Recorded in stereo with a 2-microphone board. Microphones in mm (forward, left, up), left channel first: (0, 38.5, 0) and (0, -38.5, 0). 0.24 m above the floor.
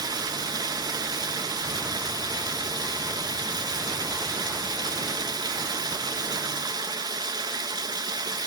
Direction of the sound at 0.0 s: 60° right (ahead or behind).